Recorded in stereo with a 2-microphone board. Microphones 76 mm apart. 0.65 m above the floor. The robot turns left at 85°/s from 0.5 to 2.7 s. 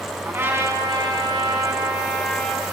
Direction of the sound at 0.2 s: 30° right.